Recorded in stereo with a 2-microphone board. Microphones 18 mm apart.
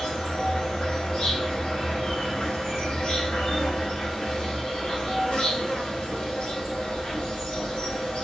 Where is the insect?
80° left, 1.2 m.